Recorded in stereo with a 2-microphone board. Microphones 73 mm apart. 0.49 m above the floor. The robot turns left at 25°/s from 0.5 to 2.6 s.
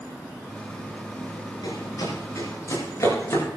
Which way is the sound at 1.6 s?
70° left (ahead or behind).